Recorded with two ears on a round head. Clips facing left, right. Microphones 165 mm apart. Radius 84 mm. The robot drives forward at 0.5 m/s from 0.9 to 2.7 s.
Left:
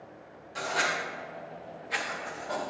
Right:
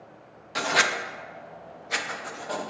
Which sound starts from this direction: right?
Writing, at 0.6 s.